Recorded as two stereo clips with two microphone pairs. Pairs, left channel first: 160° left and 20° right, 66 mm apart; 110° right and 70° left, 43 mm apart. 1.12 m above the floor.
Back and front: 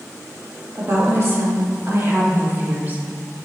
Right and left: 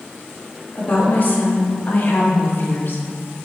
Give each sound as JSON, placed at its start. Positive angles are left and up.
{"t": 0.8, "sound": "a woman speaking", "azimuth_deg": -65, "distance_m": 2.0}